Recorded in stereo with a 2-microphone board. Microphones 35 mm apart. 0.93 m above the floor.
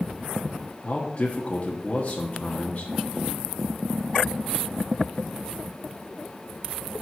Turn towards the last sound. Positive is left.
turn(degrees=40)  # may be behind; listen again after turning